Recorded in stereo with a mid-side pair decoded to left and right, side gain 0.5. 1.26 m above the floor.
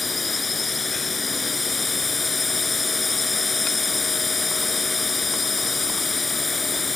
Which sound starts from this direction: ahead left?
A drone, at 0.0 s.